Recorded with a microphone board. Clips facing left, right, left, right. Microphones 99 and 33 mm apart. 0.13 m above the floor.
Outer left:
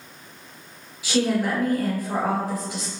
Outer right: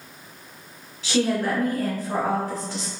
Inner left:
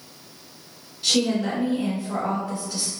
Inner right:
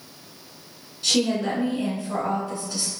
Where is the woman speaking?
10° left (ahead or behind), 1.7 m.